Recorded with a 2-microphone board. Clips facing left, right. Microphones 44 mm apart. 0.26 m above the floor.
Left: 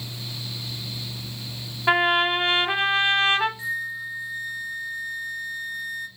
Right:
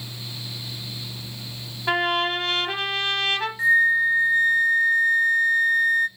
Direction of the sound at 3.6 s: 55° right (ahead or behind).